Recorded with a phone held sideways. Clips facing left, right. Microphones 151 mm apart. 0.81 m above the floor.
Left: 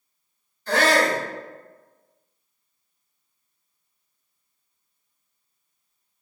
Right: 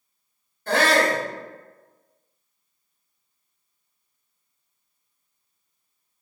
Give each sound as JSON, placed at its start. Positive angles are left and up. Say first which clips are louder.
{"t": 0.7, "sound": "a shout", "louder": "even", "side_deg": -55, "distance_m": 1.8}